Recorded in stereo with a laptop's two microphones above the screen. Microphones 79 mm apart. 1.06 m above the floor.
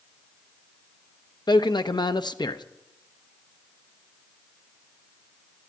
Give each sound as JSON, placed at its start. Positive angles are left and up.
{"t": 1.5, "sound": "a man speaking", "side_deg": 65, "distance_m": 0.8}